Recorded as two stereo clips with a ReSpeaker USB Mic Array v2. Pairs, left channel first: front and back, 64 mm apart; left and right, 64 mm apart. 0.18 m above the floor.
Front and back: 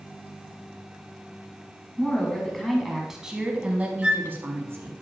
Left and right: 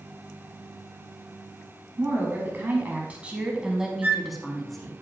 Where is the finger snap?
No finger snap in this recording.